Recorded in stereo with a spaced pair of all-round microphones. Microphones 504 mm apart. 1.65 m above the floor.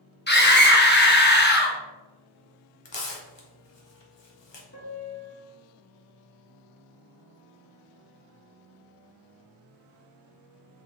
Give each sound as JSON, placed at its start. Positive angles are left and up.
{"t": 0.3, "sound": "a scream", "side_deg": 20, "distance_m": 1.1}
{"t": 2.9, "sound": "tearing paper", "side_deg": 60, "distance_m": 0.8}
{"t": 4.7, "sound": "a piano", "side_deg": 30, "distance_m": 1.3}